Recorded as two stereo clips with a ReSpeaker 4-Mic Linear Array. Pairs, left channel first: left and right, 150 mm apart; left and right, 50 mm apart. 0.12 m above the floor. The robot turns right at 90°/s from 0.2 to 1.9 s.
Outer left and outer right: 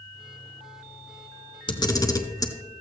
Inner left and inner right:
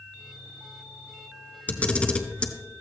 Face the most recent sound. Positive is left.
turn(degrees=25)  # may be behind; listen again after turning